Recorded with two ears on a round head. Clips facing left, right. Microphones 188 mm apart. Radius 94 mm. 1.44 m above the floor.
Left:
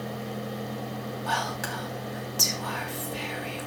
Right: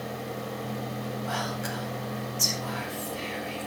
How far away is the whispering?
About 4.5 m.